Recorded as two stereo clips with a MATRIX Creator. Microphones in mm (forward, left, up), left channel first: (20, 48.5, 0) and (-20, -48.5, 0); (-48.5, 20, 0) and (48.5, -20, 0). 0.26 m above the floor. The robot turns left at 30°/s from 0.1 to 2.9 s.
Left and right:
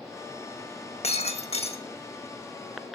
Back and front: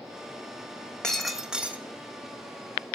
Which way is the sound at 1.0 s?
75° left.